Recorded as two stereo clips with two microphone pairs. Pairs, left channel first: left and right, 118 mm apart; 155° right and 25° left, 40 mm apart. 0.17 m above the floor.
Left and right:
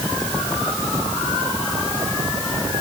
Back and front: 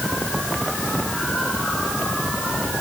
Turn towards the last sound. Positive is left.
No sound to turn to.